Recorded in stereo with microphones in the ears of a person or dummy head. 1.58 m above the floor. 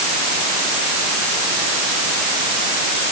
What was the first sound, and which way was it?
Only background noise.